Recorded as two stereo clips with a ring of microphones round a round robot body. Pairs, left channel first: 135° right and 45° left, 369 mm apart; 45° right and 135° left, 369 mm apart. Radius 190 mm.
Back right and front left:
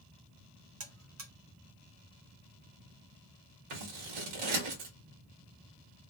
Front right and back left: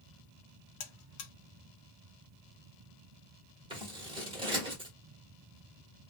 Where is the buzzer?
10° right, 0.7 m.